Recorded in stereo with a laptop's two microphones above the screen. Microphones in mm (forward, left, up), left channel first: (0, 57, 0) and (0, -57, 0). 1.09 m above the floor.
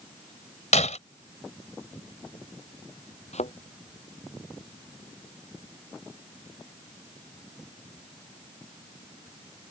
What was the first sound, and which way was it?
Breaking glass, 85° left.